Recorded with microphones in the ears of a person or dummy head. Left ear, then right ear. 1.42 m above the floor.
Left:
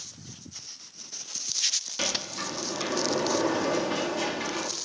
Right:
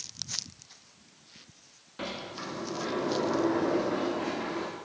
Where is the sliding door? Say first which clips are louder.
Left 8 dB; 90° left, 3 m.